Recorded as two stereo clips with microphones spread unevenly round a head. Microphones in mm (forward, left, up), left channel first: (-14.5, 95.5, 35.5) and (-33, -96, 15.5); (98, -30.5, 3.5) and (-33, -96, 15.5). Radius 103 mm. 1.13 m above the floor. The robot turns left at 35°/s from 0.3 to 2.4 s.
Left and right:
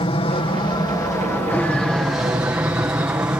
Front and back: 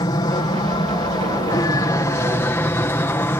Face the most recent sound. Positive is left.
turn(degrees=-25)